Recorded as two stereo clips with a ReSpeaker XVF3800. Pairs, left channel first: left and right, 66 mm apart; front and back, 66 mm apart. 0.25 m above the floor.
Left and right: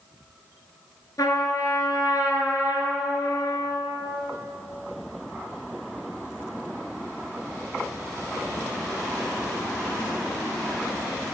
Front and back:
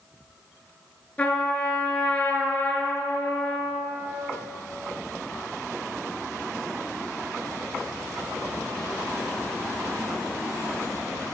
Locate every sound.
1.2 s a trumpet: 65° left, 4.5 m